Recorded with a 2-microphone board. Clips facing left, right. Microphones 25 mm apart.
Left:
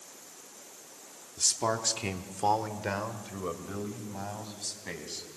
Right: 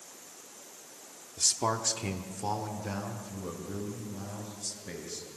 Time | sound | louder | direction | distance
1.4 | a man speaking | even | 15° right (ahead or behind) | 1.1 m